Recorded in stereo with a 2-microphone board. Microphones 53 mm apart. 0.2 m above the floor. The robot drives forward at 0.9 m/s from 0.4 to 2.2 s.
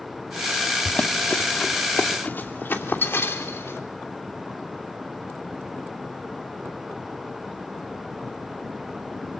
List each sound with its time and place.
0.8 s running footsteps: 25° left (ahead or behind), 1.0 m; by 3.8 s 55° left (ahead or behind), 3 m